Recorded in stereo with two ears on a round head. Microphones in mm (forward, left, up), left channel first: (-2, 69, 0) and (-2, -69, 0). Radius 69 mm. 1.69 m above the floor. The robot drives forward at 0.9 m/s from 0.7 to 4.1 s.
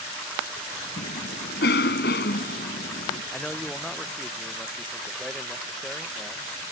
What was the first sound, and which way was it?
A cough, 75° left (ahead or behind).